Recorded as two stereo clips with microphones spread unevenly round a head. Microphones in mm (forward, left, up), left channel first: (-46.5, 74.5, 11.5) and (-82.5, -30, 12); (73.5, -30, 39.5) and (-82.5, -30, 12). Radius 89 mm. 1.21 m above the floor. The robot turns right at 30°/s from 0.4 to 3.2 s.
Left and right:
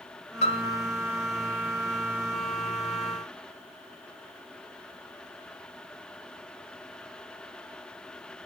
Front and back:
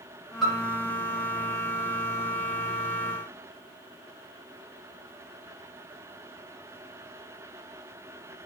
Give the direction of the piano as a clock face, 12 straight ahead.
9 o'clock.